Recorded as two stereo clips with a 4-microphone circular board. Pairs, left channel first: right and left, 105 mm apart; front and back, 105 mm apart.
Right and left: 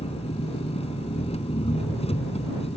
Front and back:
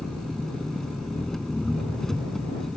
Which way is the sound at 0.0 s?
85° right.